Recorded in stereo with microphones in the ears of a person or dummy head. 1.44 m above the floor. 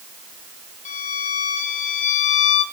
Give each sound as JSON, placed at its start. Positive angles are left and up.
{"t": 0.8, "sound": "a violin", "side_deg": 45, "distance_m": 4.5}